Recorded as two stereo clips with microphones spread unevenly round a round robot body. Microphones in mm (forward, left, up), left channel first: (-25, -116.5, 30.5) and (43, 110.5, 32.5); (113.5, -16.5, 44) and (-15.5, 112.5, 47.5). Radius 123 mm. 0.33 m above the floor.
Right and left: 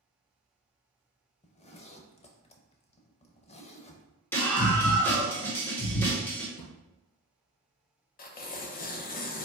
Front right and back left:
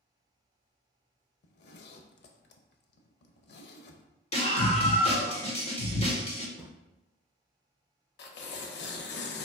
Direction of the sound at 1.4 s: 45° right.